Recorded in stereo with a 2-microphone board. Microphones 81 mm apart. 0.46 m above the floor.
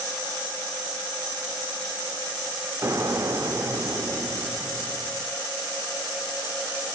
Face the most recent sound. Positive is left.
turn(degrees=-35)  # may be behind; listen again after turning